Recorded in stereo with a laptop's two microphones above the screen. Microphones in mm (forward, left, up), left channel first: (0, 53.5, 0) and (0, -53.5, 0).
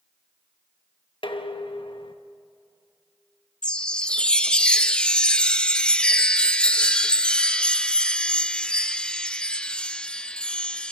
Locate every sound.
1.2 s dishes clattering: 55° left (ahead or behind), 0.9 m
3.6 s a chime: 10° left (ahead or behind), 0.8 m